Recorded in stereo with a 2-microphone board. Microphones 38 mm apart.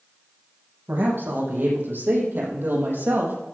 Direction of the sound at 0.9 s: 70° right (ahead or behind).